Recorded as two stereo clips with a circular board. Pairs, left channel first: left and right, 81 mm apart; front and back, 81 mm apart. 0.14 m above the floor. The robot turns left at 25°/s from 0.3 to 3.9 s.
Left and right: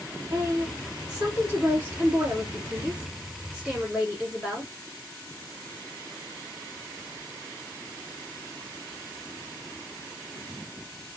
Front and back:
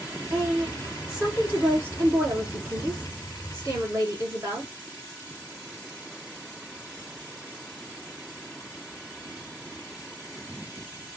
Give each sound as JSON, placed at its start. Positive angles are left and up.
{"t": 0.3, "sound": "a woman speaking", "azimuth_deg": -85, "distance_m": 1.3}